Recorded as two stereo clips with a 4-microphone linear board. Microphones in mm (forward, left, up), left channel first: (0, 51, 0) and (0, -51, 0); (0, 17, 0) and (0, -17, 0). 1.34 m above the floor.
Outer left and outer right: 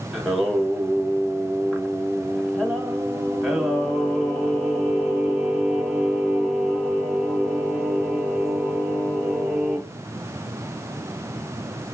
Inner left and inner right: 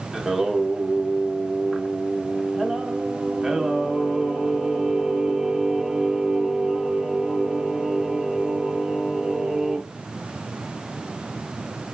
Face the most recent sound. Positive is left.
turn(degrees=-5)  # may be behind; listen again after turning